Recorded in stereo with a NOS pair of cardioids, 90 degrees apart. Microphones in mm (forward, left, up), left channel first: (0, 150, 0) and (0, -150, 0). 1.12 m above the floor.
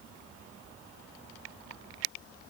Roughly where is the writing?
I don't hear writing.